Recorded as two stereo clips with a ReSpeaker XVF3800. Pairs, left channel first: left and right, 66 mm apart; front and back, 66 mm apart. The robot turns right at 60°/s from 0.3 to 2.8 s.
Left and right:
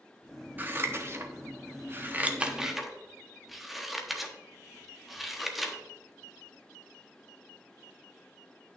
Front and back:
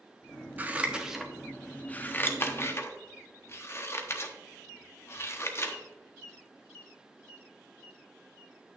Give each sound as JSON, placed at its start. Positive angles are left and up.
{"t": 0.6, "sound": "scissors", "azimuth_deg": -135, "distance_m": 1.0}